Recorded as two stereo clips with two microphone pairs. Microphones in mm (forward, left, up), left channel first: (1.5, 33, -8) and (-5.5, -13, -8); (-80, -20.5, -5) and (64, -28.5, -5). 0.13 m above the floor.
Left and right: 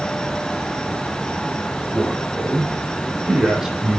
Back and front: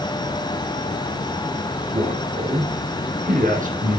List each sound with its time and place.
1.9 s a man speaking: 5° right, 4 m; by 4.0 s 20° right, 4.5 m